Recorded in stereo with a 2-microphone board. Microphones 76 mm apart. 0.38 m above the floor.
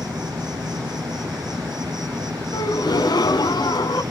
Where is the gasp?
80° left, 1.3 m.